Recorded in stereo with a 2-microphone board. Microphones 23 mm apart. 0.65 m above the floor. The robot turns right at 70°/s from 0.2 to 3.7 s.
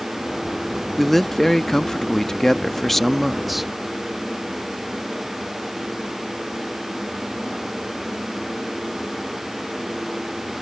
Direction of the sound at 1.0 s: 5° left (ahead or behind).